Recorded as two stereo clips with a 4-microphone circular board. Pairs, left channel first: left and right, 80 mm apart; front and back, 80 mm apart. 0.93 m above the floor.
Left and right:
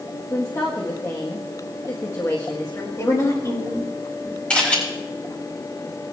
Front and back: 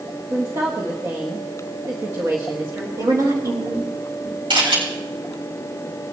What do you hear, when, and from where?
0.3 s a woman speaking: 130° left, 1.5 m
3.0 s a woman speaking: 135° left, 4 m
4.5 s a camera shutter: 165° left, 4.5 m